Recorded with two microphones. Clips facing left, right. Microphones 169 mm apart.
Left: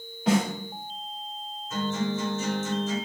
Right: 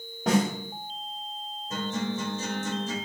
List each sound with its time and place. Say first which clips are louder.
0.3 s a snare drum: even; 45° right (ahead or behind), 2.5 m
1.7 s a guitar: left 2 dB; 35° right (ahead or behind), 2.5 m